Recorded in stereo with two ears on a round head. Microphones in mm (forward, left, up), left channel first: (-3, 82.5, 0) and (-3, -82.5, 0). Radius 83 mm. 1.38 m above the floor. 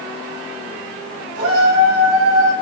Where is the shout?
85° right, 6.5 m.